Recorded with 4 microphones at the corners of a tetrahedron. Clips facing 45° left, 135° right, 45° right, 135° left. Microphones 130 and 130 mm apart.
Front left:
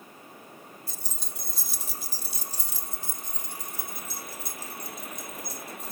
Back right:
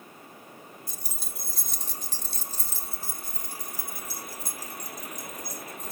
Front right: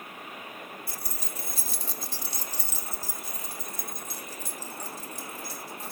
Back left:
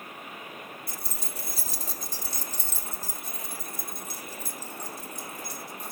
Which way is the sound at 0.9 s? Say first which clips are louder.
Even, even; 170° left.